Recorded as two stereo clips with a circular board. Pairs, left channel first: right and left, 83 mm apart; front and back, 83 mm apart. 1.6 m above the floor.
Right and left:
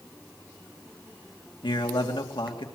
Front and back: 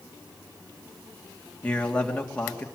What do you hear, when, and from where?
1.6 s a man speaking: 75° right, 2.5 m